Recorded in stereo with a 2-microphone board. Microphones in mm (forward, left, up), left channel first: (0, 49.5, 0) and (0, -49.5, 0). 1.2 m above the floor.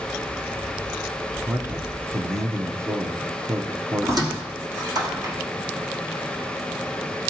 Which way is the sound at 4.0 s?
40° right (ahead or behind).